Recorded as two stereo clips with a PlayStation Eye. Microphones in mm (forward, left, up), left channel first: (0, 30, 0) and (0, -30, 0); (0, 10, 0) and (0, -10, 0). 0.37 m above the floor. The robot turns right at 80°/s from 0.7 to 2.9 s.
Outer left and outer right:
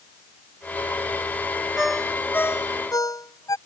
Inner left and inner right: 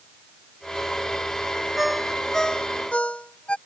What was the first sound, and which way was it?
A ringtone, 15° right (ahead or behind).